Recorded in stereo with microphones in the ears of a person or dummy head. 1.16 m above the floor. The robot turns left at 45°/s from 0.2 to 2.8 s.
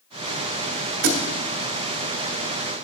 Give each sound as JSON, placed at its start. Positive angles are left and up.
{"t": 1.0, "sound": "a thud", "side_deg": -45, "distance_m": 1.2}